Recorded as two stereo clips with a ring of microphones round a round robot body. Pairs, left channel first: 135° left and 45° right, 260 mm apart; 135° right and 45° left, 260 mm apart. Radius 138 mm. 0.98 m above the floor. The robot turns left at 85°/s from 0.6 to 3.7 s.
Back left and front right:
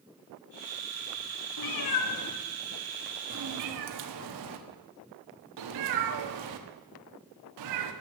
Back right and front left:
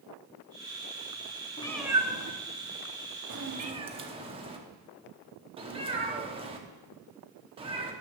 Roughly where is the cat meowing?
Behind left.